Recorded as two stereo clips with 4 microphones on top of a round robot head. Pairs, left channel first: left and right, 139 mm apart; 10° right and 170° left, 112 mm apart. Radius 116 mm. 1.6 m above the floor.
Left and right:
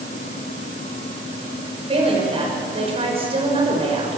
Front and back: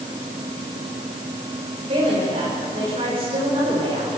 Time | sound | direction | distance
1.9 | a woman speaking | 140° right | 6.5 m